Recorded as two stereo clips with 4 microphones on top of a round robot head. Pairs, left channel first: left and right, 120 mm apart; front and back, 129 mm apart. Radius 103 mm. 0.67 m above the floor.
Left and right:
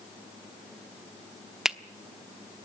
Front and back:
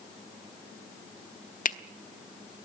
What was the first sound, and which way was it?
A finger snap, 5° right.